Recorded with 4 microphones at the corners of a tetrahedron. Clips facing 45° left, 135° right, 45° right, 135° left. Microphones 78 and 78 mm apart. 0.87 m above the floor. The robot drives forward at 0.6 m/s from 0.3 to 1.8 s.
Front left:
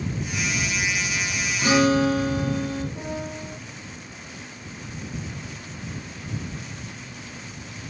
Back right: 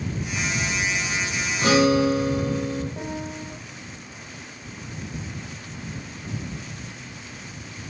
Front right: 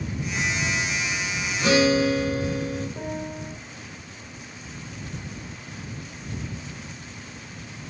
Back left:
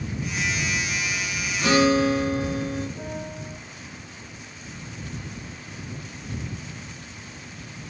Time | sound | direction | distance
1.6 | a guitar | 155° right | 1.5 m
3.0 | a piano | 90° right | 0.7 m